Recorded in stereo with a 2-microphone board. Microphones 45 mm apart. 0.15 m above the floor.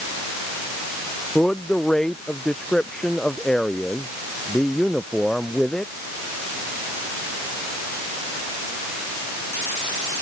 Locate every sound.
1.4 s a man speaking: 15° left (ahead or behind)